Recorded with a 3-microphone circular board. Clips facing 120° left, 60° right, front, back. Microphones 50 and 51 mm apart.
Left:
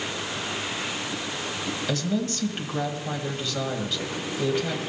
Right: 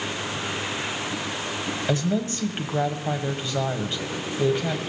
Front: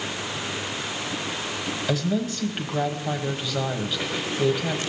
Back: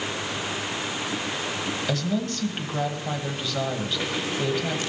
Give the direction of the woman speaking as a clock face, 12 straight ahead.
3 o'clock.